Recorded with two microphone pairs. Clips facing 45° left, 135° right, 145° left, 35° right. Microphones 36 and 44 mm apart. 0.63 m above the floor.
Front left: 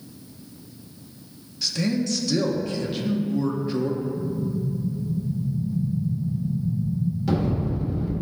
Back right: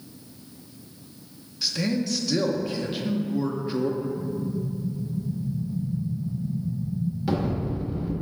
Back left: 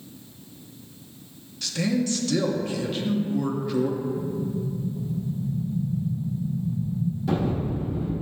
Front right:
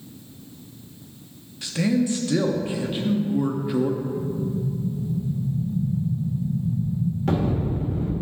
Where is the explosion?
60° right, 2 m.